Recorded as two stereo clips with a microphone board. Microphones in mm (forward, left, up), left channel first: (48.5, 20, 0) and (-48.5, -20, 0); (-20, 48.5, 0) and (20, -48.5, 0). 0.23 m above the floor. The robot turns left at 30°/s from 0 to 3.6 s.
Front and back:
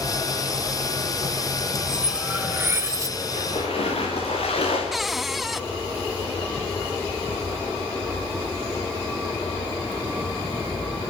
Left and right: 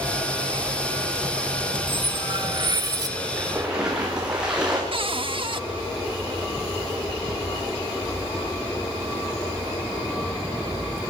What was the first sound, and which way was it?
Cutlery clinking, 70° right.